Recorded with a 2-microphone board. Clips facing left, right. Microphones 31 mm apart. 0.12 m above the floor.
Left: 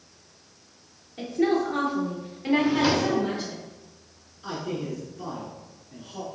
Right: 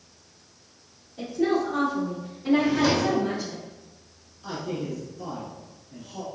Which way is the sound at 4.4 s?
25° left (ahead or behind).